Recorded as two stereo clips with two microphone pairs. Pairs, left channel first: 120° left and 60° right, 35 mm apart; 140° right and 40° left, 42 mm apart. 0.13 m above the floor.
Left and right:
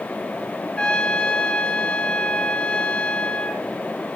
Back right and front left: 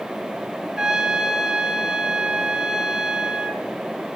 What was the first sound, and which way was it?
A trumpet, 105° left.